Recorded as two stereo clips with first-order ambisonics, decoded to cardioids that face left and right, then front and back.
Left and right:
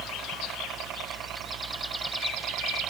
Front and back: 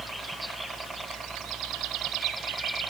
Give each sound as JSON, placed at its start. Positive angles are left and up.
{"t": 0.0, "sound": "a helicopter", "azimuth_deg": -110}